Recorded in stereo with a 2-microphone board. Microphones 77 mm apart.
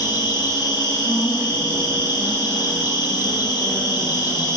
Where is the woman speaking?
70° left (ahead or behind), 4 m.